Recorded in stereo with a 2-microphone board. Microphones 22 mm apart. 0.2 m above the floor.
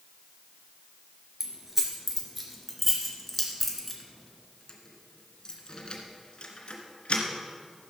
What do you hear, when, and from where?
1.4 s keys jangling: 15° right (ahead or behind), 2.5 m; by 7.2 s 60° left (ahead or behind), 2 m